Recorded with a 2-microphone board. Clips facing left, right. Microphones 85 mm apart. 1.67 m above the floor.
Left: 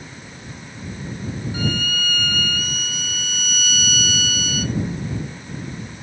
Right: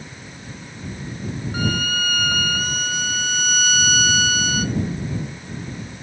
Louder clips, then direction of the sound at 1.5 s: Right 2 dB; 55° right (ahead or behind).